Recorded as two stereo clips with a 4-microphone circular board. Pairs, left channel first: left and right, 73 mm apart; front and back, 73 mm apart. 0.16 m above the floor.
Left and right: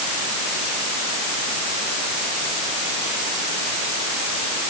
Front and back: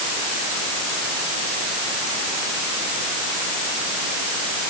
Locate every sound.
Only background noise.